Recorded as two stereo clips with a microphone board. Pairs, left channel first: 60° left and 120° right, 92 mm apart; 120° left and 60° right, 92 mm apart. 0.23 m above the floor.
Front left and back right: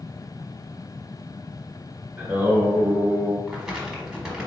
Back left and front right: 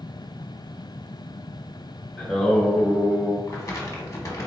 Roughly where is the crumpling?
Behind.